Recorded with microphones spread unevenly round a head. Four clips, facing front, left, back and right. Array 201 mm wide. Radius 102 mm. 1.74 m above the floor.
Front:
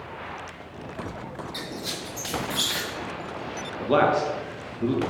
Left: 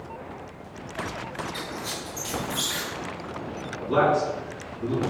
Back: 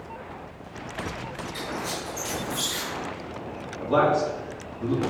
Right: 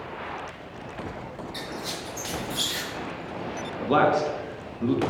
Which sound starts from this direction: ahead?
A squeak, at 1.5 s.